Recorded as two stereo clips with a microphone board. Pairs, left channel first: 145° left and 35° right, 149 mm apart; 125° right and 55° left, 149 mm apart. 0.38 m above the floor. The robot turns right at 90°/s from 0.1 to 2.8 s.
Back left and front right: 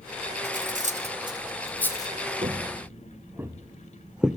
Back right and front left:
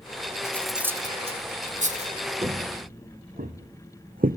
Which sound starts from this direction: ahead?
Footsteps, at 2.4 s.